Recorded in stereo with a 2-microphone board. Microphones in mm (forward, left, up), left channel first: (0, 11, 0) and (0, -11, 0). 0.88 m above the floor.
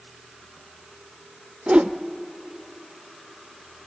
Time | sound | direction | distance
1.7 | a whoosh | 75° right (ahead or behind) | 0.5 m